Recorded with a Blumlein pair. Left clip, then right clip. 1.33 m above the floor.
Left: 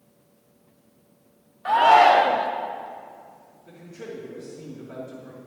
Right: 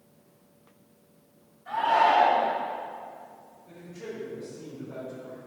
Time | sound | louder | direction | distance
1.6 | a shout | left 7 dB | 45° left | 0.9 m
3.7 | a man speaking | left 2 dB | 45° left | 2.5 m